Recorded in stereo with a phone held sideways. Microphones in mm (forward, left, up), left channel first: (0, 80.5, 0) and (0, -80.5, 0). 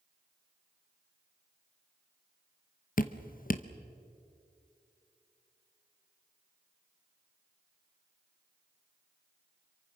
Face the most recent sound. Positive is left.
turn(degrees=55)  # may be behind; listen again after turning